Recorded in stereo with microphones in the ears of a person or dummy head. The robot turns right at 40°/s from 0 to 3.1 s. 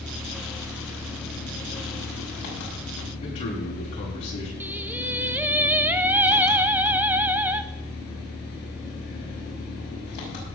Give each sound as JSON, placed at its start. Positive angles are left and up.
{"t": 0.0, "sound": "an engine running", "azimuth_deg": -5, "distance_m": 5.5}
{"t": 3.2, "sound": "a man speaking", "side_deg": 40, "distance_m": 9.0}
{"t": 4.6, "sound": "singing", "side_deg": -5, "distance_m": 0.7}